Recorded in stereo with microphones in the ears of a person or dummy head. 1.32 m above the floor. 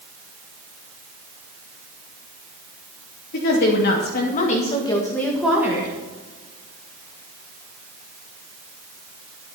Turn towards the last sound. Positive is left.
turn(degrees=-20)  # may be behind; listen again after turning